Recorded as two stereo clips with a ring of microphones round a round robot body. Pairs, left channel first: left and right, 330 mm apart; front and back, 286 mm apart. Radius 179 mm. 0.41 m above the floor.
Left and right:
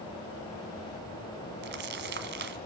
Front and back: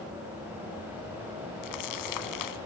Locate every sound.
1.6 s crumpling: 30° right, 1.4 m